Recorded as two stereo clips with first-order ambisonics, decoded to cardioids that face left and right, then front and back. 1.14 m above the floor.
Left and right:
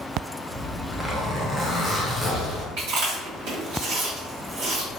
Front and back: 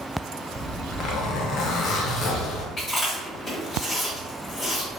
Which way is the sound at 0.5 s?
5° right.